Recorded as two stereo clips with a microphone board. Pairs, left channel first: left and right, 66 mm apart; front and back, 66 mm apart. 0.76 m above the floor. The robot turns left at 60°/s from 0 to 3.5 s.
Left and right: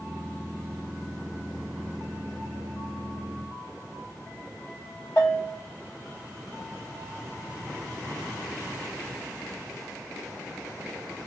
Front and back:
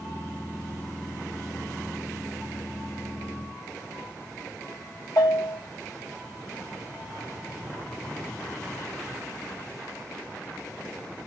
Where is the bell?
35° left, 2.5 m.